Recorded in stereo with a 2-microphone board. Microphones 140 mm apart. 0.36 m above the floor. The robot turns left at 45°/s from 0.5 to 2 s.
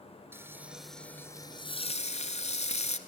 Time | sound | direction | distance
0.3 | frying | 165° right | 1.0 m